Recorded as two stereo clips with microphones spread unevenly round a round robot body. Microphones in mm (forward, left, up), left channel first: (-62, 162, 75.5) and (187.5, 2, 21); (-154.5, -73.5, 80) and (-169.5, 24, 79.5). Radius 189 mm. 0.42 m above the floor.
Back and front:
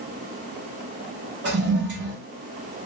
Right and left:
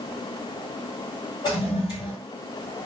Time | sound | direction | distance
1.4 | a toilet flushing | 60° right | 1.8 m